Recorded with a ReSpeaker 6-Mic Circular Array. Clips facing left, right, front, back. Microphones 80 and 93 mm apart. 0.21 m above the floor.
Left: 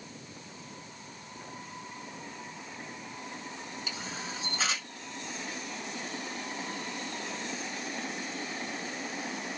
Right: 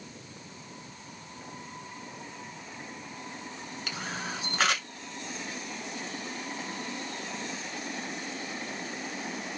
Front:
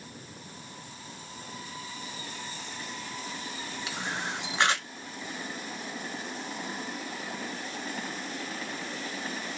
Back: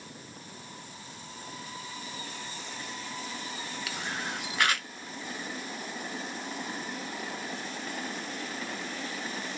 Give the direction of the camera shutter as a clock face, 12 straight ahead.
2 o'clock.